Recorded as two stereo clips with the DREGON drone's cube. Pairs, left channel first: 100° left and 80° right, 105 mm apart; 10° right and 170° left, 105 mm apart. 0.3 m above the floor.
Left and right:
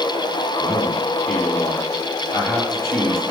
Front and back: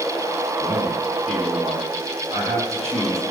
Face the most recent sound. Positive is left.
turn(degrees=165)